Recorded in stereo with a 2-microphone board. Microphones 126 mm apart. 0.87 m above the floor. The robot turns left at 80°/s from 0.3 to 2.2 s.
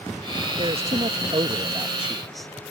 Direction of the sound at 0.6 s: 50° right.